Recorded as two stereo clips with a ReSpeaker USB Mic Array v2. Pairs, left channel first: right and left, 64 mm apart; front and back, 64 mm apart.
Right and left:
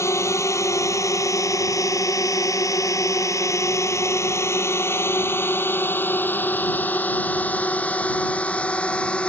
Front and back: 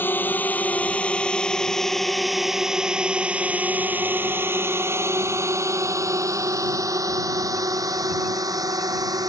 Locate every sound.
0.0 s a drone: 55° right; by 9.3 s 160° right